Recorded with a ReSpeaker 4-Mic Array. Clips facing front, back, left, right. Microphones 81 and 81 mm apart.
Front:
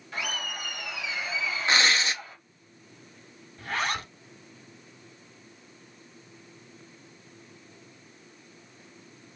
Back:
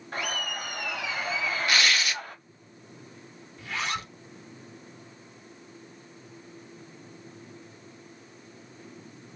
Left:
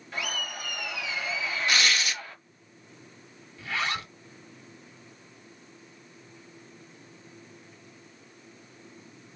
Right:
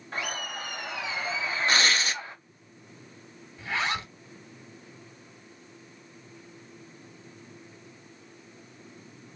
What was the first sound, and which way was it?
Laughter, 140° right.